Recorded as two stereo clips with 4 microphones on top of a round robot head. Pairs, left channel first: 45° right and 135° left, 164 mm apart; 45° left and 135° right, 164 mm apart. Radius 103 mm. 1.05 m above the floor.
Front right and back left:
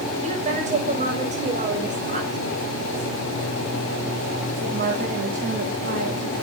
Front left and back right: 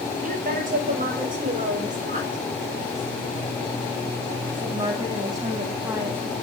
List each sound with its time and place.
0.2 s a woman speaking: 175° right, 6 m; by 6.3 s 145° left, 2.5 m